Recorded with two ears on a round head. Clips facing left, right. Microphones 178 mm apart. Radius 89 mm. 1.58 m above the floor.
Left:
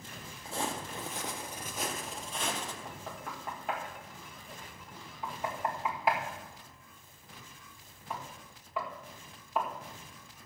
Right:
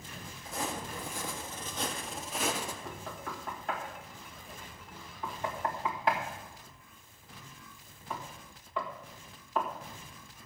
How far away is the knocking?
About 1.7 m.